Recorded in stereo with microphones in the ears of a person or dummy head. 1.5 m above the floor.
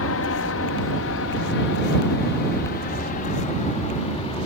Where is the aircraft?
65° left (ahead or behind); by 4.5 s 30° left (ahead or behind).